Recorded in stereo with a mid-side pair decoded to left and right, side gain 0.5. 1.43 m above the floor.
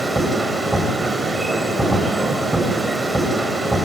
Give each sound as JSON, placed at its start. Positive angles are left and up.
{"t": 0.0, "sound": "a machine running", "azimuth_deg": -15, "distance_m": 7.5}